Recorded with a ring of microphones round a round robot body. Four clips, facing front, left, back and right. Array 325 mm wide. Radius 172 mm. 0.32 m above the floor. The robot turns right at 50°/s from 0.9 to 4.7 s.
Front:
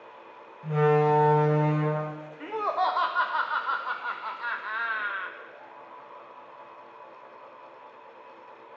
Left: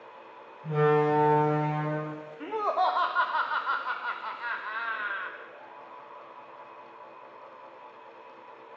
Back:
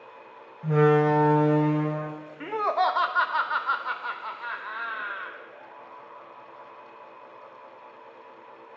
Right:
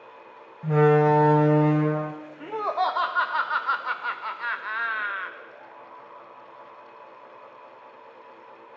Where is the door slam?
110° right, 1.2 m; by 2.1 s 45° right, 1.2 m.